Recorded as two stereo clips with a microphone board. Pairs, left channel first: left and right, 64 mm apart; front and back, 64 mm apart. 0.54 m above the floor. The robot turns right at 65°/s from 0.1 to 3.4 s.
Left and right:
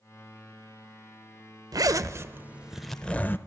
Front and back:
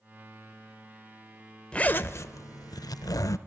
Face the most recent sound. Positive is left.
turn(degrees=35)